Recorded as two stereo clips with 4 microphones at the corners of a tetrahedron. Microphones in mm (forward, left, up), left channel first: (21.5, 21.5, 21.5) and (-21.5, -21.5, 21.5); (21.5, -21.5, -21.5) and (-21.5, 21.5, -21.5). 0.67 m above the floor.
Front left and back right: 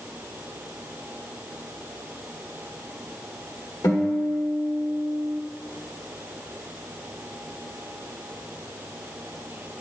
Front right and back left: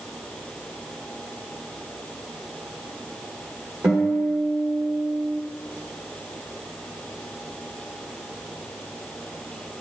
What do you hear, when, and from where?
3.8 s a guitar: 70° left, 1.2 m